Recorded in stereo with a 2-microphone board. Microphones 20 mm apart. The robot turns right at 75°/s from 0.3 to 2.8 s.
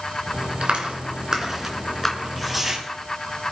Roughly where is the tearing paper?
Behind.